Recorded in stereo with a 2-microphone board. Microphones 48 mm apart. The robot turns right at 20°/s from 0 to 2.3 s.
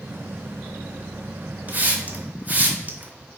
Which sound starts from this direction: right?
A hiss, at 1.7 s.